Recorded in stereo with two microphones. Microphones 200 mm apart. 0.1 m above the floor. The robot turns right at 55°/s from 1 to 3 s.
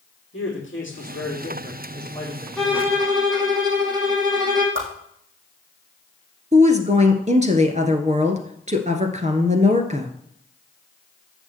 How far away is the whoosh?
About 3.5 m.